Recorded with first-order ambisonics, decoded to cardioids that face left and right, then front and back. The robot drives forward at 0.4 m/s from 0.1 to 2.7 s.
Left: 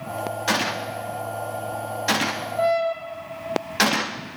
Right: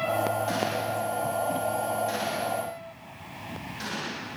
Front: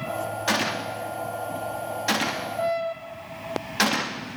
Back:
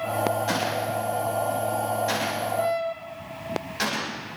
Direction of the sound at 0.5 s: 50° left.